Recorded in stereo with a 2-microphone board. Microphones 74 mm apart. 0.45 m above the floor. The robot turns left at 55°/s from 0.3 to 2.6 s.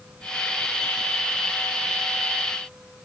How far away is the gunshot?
I don't hear a gunshot.